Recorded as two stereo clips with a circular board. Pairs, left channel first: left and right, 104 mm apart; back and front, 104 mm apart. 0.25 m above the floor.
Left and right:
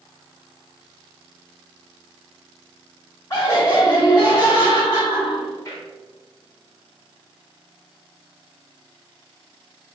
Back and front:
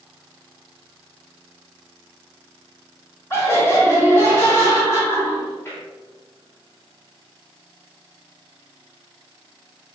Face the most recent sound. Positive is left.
turn(degrees=135)